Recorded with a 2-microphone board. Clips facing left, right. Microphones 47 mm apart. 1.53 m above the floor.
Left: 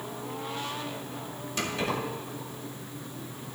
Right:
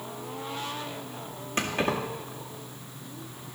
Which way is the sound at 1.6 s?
40° right (ahead or behind).